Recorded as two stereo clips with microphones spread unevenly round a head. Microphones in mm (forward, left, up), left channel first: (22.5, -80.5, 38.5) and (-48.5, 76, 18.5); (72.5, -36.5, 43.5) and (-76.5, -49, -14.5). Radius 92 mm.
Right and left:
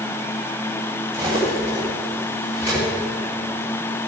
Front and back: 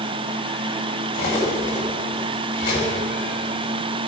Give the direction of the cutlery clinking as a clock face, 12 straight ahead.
11 o'clock.